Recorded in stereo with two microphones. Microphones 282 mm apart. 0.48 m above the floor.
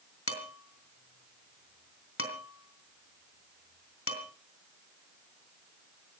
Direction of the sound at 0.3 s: 50° left (ahead or behind).